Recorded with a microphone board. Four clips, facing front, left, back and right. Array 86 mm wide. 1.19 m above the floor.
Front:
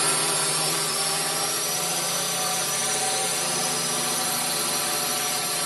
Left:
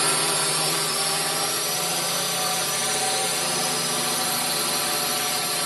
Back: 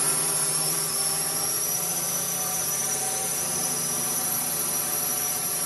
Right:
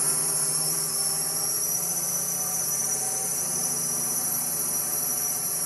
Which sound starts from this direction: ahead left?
A drone, at 0.0 s.